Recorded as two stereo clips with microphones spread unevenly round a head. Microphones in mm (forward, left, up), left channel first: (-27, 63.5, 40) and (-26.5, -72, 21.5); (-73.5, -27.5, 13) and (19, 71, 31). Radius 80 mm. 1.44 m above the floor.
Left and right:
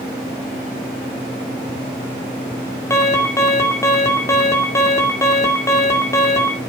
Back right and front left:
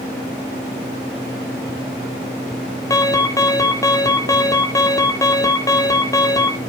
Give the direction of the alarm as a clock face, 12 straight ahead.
7 o'clock.